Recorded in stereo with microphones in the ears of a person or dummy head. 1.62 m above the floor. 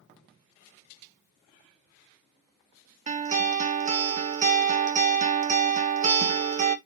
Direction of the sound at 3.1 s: 35° right (ahead or behind).